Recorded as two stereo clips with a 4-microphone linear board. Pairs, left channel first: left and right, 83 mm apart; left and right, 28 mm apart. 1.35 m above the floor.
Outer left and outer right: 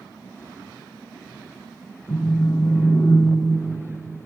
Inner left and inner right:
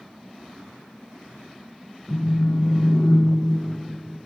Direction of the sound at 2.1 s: 55° left (ahead or behind).